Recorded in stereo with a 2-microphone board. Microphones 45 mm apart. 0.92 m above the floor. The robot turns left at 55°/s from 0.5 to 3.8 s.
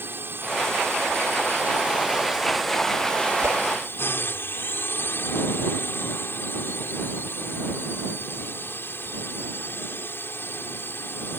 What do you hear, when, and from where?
0.0 s a drone: 60° right; by 11.4 s 115° left
3.4 s a whoosh: 75° right (ahead or behind); by 3.6 s 85° right